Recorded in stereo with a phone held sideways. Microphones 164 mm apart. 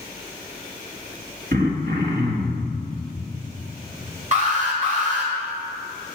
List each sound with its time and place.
1.5 s throat clearing: 65° right (ahead or behind), 1.5 m
4.3 s an alarm: 50° right (ahead or behind), 2.5 m